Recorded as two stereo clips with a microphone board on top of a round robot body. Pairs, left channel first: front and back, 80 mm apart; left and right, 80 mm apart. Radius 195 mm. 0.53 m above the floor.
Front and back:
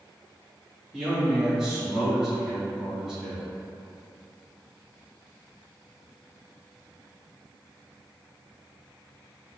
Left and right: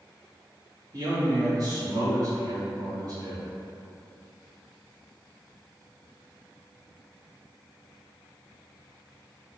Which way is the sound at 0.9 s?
100° right.